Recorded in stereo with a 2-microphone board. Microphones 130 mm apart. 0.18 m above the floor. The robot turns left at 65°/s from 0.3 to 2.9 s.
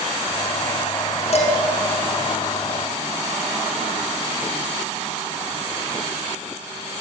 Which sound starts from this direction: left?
Dishes clattering, at 1.3 s.